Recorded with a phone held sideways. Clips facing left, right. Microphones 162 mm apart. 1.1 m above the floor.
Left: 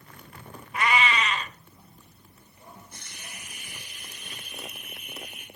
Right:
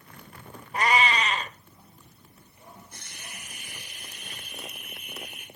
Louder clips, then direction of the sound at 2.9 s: Even; 60° right (ahead or behind).